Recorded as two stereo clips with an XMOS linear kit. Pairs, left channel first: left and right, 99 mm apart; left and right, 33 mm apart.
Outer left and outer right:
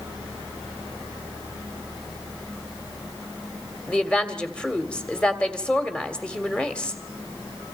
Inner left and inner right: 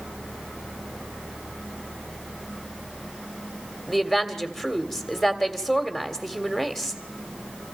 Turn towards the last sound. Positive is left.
turn(degrees=10)  # may be behind; listen again after turning